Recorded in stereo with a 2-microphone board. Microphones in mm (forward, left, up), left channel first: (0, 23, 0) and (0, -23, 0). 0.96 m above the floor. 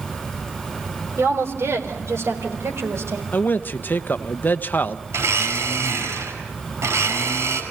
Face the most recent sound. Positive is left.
turn(degrees=-85)